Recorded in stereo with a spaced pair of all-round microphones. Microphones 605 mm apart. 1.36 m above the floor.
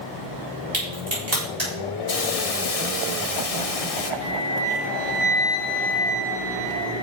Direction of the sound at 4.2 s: 40° right (ahead or behind).